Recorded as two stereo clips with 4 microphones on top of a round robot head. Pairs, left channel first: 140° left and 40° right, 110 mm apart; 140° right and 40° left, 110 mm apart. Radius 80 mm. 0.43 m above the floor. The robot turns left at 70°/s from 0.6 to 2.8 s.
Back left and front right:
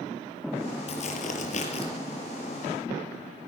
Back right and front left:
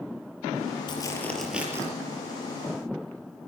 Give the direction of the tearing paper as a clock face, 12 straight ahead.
6 o'clock.